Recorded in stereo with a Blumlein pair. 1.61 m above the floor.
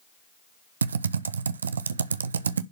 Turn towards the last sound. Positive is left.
turn(degrees=-70)